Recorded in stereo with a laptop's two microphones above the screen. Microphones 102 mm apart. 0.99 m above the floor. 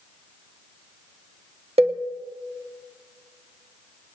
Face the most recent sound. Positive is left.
turn(degrees=-75)  # may be behind; listen again after turning